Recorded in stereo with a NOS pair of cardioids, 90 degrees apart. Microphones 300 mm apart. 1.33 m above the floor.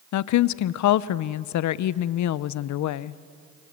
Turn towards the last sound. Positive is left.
turn(degrees=70)